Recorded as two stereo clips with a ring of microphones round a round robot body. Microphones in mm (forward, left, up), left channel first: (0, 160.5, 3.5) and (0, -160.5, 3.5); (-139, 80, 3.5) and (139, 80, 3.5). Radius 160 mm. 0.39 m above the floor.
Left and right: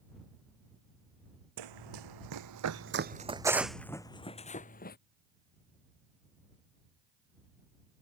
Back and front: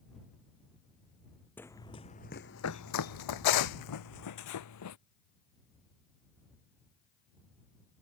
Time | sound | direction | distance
1.6 | running footsteps | 95° right | ?